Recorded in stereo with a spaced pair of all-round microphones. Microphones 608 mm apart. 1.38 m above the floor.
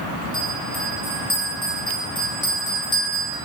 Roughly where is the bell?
Centre.